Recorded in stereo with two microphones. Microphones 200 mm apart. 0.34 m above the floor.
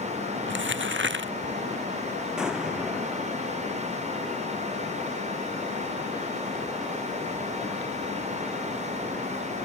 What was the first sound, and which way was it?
Crumpling, 70° right (ahead or behind).